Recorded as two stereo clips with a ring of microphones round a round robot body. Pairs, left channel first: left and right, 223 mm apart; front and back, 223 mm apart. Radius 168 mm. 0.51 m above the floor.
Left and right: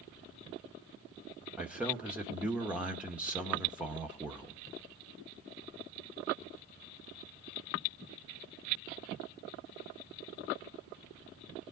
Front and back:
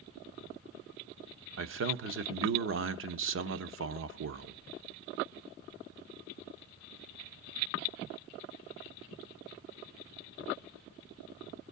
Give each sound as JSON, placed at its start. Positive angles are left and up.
{"t": 1.6, "sound": "a man speaking", "azimuth_deg": -175, "distance_m": 1.0}